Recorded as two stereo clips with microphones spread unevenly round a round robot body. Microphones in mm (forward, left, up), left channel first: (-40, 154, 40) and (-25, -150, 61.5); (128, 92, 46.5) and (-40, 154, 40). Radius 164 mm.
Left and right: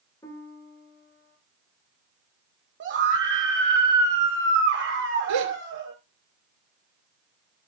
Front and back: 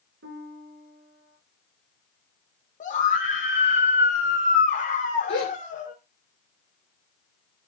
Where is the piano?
175° left, 2 m.